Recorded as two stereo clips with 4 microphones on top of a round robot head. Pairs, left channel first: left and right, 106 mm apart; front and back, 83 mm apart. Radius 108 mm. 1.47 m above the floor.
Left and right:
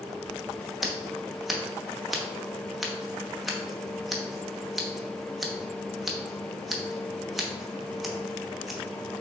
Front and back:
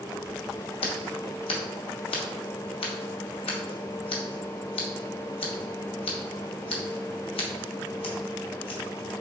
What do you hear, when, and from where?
0.8 s scissors: straight ahead, 0.8 m